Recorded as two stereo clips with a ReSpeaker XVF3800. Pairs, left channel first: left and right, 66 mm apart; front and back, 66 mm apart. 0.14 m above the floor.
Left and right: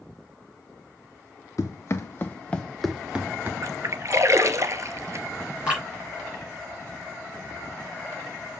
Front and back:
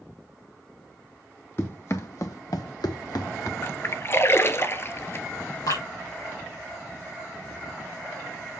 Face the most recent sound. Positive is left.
turn(degrees=-15)